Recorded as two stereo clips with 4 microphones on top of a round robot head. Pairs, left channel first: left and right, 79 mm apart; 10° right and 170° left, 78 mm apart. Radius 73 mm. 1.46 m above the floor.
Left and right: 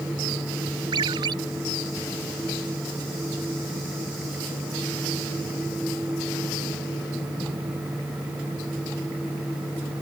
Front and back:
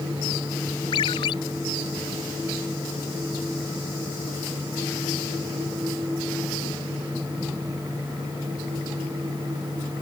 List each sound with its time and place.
0.9 s a ringtone: 45° right